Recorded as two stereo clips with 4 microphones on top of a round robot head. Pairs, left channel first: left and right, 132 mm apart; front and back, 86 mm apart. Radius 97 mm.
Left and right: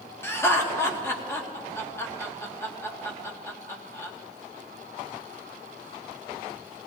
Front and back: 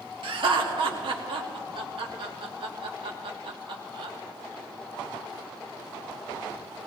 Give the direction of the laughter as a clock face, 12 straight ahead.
7 o'clock.